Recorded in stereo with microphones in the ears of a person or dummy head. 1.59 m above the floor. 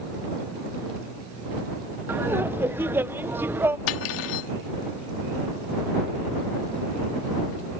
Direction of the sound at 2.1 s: 10° right (ahead or behind).